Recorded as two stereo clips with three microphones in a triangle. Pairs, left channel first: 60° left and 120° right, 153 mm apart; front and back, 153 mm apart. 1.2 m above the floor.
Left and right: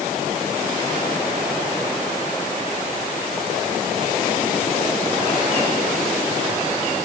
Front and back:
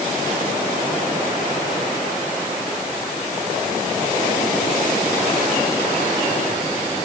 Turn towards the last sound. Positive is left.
No sound to turn to.